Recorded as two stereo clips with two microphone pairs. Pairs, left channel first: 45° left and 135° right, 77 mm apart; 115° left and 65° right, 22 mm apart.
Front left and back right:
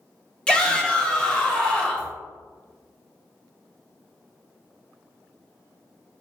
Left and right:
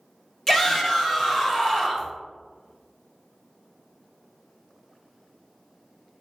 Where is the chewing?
I don't hear chewing.